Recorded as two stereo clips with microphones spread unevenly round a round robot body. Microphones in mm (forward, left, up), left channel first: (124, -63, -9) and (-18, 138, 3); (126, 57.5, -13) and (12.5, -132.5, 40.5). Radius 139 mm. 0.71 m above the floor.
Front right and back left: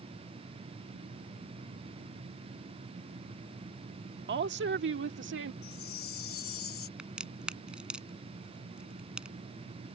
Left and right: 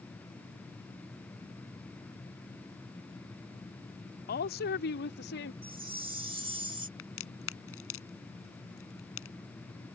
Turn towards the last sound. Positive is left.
turn(degrees=40)